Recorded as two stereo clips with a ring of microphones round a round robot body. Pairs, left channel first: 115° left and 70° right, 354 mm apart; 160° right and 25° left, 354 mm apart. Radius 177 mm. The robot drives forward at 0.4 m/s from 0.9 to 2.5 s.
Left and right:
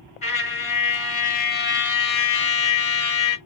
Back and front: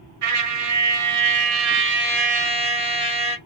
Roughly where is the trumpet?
Ahead left.